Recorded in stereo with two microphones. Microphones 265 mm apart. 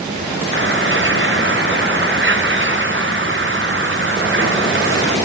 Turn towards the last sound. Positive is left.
turn(degrees=-45)  # may be behind; listen again after turning